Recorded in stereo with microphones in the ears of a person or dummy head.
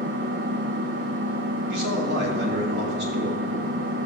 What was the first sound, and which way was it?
An engine running, 55° right (ahead or behind).